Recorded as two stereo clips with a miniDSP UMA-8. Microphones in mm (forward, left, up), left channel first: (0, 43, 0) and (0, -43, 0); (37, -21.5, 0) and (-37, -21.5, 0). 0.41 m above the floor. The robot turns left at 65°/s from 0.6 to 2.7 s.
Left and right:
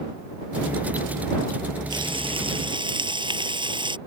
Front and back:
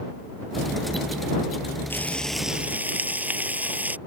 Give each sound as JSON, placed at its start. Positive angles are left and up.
{"t": 1.9, "sound": "frying", "azimuth_deg": -60}